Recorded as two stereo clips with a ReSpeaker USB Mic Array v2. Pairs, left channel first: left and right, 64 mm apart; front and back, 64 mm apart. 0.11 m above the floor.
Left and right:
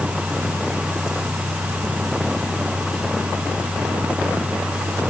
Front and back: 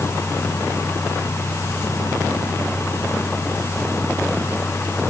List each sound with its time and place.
Only background noise.